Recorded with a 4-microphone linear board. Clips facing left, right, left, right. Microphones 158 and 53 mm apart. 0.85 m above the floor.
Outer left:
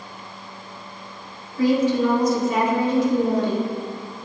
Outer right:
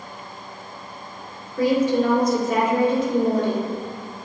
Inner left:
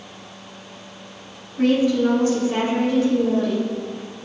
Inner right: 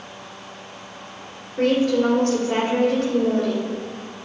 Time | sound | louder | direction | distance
1.6 | a woman speaking | even, inner left 1 dB | 50° right (ahead or behind) | 2 m